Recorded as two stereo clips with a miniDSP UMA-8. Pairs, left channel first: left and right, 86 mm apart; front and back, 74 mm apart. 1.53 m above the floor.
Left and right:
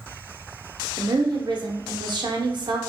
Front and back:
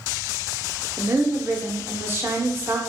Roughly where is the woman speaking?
Behind right.